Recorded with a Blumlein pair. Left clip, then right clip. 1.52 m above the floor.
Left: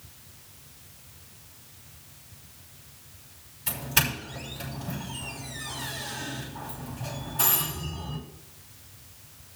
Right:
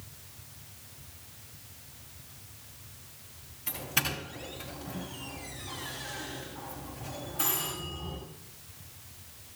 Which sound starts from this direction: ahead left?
A doorbell, at 3.7 s.